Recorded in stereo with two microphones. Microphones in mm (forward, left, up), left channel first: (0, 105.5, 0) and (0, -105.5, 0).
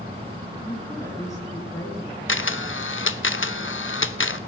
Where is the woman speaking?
15° left (ahead or behind), 3.5 m.